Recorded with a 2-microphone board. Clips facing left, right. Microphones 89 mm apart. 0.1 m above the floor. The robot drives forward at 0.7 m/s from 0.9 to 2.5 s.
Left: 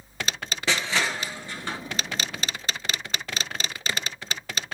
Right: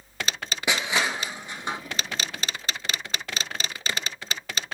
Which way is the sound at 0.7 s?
15° right (ahead or behind).